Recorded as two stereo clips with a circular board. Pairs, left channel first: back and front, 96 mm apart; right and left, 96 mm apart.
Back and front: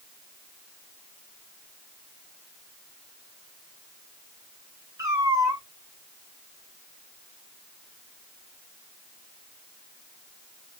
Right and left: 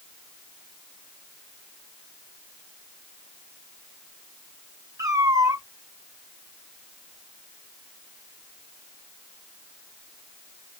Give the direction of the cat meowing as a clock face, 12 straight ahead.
11 o'clock.